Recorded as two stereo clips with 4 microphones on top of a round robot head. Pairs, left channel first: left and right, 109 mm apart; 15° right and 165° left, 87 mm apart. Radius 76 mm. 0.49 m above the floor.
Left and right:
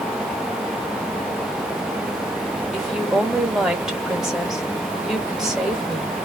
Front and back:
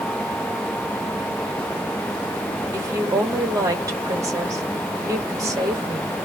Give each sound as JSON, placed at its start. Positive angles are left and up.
{"t": 2.7, "sound": "a woman speaking", "azimuth_deg": -175, "distance_m": 1.5}